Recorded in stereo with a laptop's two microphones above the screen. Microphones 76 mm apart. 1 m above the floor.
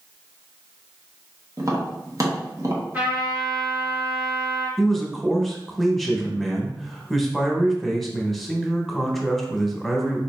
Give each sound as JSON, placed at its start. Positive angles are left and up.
{"t": 1.6, "sound": "tapping", "side_deg": -40, "distance_m": 0.9}
{"t": 2.9, "sound": "a trumpet", "side_deg": -20, "distance_m": 1.2}
{"t": 4.8, "sound": "a man speaking", "side_deg": 0, "distance_m": 0.9}